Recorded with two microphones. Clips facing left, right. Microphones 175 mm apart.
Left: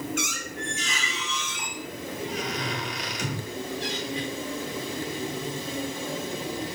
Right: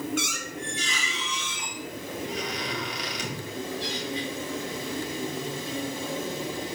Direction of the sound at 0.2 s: 45° left (ahead or behind).